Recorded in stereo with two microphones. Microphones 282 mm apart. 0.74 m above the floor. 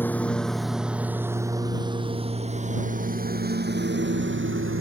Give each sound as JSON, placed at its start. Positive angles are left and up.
{"t": 0.0, "sound": "a lawn mower", "side_deg": 5}